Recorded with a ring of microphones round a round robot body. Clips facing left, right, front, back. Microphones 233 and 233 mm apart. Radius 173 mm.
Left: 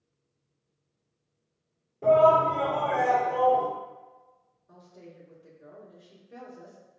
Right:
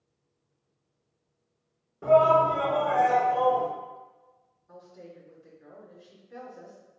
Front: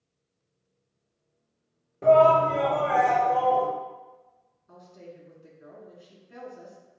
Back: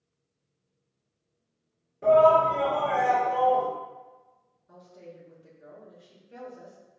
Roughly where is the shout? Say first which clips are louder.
Even, front 1 dB; ahead.